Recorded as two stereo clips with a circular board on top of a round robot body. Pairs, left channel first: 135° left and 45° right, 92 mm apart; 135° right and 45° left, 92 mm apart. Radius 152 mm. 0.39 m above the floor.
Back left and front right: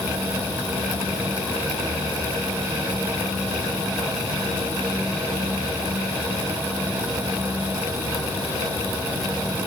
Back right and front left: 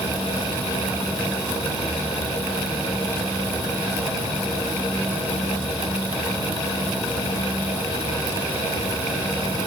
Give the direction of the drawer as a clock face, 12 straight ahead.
No drawer in this recording.